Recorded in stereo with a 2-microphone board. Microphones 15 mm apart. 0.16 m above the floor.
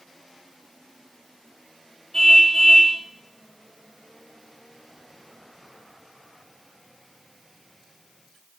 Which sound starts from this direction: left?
A car horn, at 2.1 s.